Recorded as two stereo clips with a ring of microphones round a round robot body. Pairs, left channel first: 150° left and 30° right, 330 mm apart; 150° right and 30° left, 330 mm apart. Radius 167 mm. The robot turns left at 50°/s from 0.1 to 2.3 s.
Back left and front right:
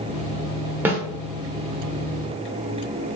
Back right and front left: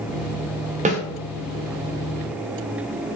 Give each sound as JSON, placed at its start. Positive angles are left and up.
{"t": 0.8, "sound": "a snare drum", "azimuth_deg": 45, "distance_m": 0.8}